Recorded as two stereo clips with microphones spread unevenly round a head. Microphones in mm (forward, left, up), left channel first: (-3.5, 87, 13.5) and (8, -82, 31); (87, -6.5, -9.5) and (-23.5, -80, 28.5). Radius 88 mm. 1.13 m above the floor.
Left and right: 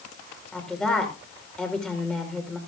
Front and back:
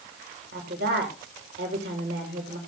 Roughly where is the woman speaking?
Behind.